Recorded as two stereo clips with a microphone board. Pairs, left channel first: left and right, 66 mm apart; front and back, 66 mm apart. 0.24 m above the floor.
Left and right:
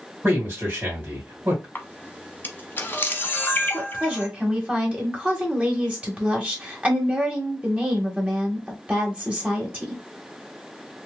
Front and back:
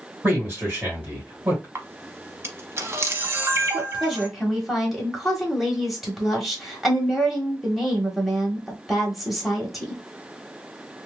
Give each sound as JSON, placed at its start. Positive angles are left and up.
{"t": 0.2, "sound": "a man speaking", "azimuth_deg": -120, "distance_m": 1.9}
{"t": 1.8, "sound": "a camera shutter", "azimuth_deg": 140, "distance_m": 0.8}
{"t": 3.7, "sound": "a woman speaking", "azimuth_deg": -95, "distance_m": 1.2}